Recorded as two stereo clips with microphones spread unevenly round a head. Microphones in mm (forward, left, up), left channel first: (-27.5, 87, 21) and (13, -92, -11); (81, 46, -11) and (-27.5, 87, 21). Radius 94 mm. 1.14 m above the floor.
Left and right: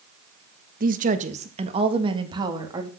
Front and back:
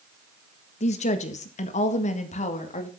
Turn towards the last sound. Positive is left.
turn(degrees=-5)